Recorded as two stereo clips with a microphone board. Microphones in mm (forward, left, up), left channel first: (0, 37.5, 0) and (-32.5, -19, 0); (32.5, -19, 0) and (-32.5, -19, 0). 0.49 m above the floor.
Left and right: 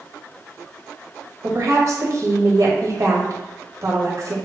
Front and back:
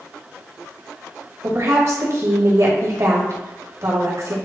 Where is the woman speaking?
150° right, 2.5 m.